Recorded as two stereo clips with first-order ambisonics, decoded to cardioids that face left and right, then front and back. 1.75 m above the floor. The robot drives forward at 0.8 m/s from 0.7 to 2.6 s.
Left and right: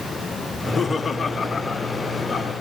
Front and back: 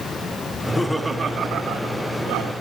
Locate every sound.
0.5 s laughter: 50° left, 0.7 m; by 2.5 s 170° left, 1.4 m